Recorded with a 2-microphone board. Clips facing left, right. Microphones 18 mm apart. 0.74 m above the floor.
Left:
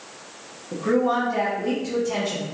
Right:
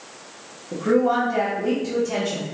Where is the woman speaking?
10° right (ahead or behind), 0.7 m.